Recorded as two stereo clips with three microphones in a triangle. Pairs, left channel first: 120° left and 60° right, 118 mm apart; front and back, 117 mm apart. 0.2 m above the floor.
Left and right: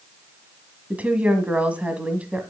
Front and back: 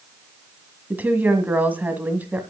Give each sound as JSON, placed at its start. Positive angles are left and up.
{"t": 0.9, "sound": "a woman speaking", "azimuth_deg": -125, "distance_m": 1.7}